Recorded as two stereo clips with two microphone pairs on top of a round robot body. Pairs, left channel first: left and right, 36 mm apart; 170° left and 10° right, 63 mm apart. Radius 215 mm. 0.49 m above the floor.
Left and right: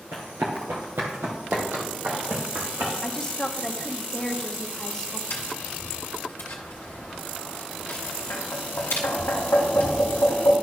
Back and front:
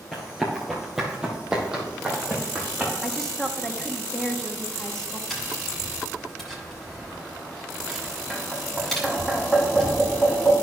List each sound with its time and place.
0.1 s running footsteps: 95° right, 0.5 m; by 2.9 s 85° right, 2.5 m
3.0 s a woman speaking: 140° left, 1.2 m
5.3 s tapping: 85° left, 1.0 m